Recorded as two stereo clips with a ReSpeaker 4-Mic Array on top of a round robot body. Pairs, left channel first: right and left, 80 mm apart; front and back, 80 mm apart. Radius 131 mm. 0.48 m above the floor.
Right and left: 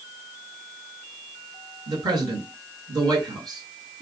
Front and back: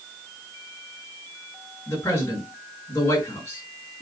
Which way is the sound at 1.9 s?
55° left.